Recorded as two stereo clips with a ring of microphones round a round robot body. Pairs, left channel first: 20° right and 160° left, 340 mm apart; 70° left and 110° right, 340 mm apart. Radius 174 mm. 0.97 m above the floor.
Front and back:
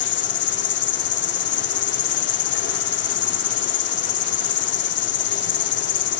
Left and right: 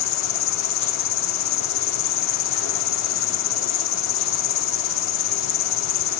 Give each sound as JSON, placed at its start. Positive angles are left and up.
{"t": 0.0, "sound": "an insect", "azimuth_deg": 30}